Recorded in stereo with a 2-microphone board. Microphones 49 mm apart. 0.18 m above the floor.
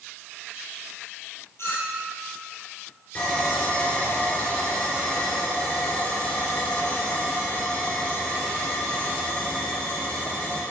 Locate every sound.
1.6 s a clink: 55° left (ahead or behind), 2.5 m
3.1 s sawing: 35° left (ahead or behind), 3 m